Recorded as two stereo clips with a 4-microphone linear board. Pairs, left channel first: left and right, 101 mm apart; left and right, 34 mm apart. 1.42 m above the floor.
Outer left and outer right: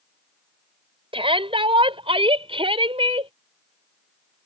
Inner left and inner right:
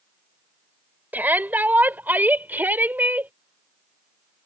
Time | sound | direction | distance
1.1 | a shout | 70° right (ahead or behind) | ?